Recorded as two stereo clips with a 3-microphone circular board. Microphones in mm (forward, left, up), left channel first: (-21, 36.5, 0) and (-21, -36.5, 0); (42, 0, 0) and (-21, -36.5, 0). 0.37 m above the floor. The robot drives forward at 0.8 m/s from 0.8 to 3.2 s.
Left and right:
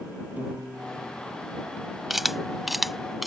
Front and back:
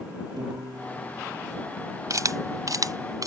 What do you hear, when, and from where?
0.4 s a piano: 160° right
2.1 s a camera shutter: 175° right; by 3.3 s straight behind